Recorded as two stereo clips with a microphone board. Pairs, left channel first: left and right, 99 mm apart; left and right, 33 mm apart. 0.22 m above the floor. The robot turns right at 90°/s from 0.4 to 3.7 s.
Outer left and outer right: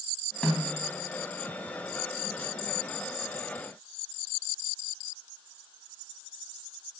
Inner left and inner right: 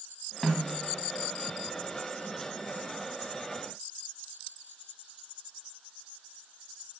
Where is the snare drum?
160° left, 1.5 m; by 0.8 s 165° right, 1.5 m.